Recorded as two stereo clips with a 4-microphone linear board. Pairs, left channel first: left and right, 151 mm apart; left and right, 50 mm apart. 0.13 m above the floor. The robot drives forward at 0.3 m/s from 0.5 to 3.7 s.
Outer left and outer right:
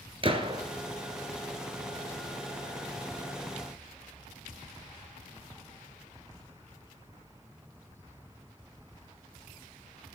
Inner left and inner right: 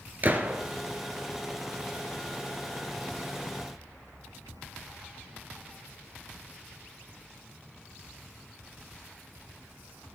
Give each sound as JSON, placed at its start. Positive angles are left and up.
{"t": 0.2, "sound": "a gunshot", "side_deg": -35, "distance_m": 1.6}